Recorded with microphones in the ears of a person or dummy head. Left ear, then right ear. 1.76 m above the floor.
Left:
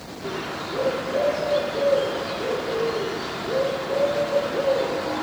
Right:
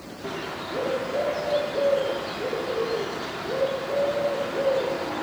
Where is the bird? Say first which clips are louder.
Left 2 dB; 10° right (ahead or behind), 0.6 m.